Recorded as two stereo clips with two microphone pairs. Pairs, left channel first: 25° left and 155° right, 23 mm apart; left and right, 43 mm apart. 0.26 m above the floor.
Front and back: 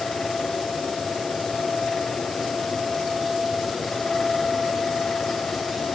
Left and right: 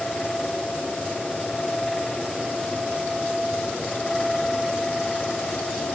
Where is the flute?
I don't hear a flute.